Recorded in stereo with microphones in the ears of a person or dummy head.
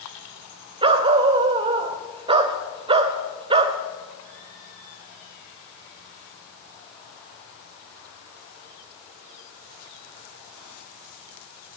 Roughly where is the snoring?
No snoring in this recording.